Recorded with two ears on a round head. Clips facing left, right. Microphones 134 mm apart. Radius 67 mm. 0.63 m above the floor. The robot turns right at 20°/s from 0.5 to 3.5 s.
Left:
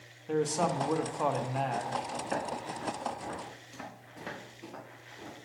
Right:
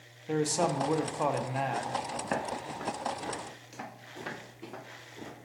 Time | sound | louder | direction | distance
0.3 | a man speaking | right 1 dB | 10° right (ahead or behind) | 0.6 m
2.2 | footsteps | right 1 dB | 70° right (ahead or behind) | 3 m